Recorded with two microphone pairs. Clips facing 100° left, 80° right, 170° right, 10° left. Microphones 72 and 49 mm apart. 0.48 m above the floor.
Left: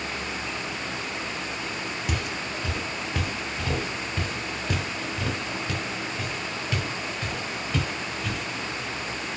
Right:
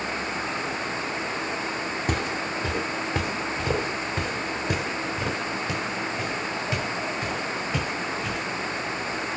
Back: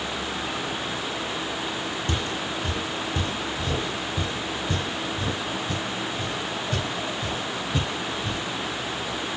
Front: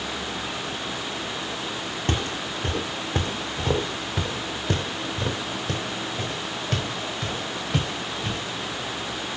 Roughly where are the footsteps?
Ahead right.